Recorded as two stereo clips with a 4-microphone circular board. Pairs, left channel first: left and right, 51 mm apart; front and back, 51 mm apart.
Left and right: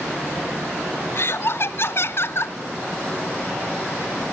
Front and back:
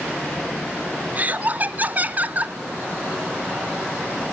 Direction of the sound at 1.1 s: 125° left.